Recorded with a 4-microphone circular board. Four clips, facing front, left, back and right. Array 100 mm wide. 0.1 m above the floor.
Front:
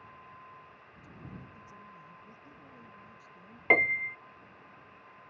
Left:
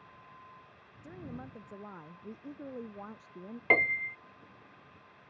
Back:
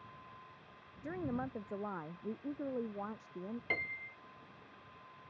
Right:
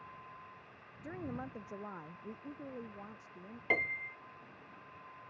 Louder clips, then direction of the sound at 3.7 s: Left 7 dB, front 14 dB; 30° left.